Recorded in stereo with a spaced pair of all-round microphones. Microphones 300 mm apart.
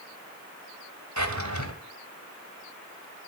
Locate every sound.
1.2 s a drawer: 70° right (ahead or behind), 2.5 m